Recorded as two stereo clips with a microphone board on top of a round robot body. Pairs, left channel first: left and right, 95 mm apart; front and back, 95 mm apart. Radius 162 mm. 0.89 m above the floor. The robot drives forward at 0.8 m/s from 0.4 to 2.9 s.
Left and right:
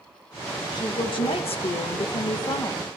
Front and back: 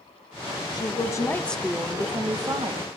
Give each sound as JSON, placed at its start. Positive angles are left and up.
{"t": 0.7, "sound": "a woman speaking", "azimuth_deg": 45, "distance_m": 1.1}